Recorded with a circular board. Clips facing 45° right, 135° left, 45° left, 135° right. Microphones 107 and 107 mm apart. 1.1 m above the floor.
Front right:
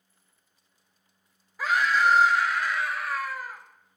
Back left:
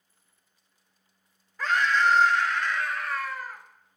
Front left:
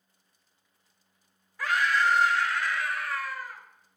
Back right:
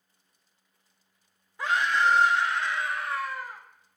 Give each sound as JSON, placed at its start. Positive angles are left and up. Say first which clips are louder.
{"t": 1.6, "sound": "a scream", "louder": "even, back right 1 dB", "azimuth_deg": -115, "distance_m": 0.6}